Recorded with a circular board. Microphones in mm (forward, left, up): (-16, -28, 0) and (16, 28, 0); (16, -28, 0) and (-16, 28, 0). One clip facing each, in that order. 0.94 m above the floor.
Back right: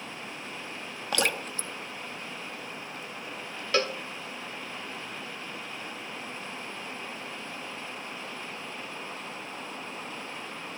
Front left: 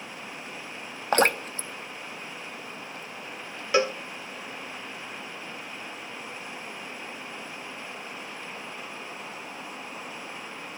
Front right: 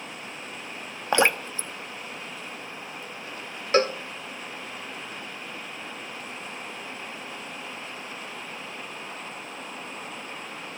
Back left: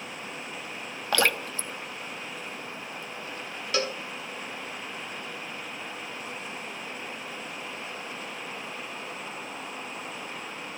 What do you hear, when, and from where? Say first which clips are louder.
1.1 s dripping: front left 7 dB, front right 3 dB; 10° left, 0.9 m
3.7 s a cowbell: front left 4 dB, front right 8 dB; 10° right, 0.6 m